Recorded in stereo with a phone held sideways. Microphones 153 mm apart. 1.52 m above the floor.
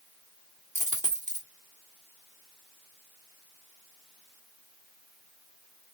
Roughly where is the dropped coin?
Right.